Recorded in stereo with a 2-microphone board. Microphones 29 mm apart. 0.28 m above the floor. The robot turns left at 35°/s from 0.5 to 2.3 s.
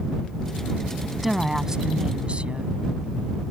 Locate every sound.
1.2 s a woman speaking: 10° right; by 2.7 s 45° right